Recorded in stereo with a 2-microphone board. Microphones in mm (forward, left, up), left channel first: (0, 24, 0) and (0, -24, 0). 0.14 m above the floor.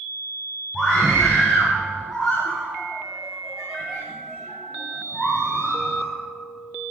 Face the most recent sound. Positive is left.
turn(degrees=10)  # may be behind; listen again after turning